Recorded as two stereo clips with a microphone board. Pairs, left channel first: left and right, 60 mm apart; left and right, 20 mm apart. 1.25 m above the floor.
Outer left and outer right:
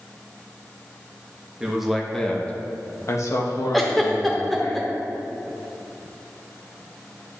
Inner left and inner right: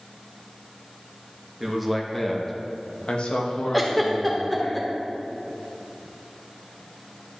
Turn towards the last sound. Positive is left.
turn(degrees=5)  # may be behind; listen again after turning